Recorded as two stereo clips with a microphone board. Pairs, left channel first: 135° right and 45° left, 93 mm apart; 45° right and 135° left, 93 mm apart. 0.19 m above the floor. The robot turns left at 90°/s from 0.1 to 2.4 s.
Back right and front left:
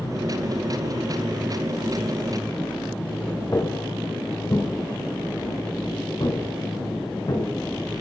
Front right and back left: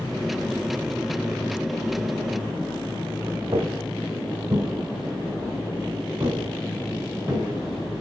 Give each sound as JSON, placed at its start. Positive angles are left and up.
{"t": 3.5, "sound": "footsteps", "azimuth_deg": 170, "distance_m": 1.2}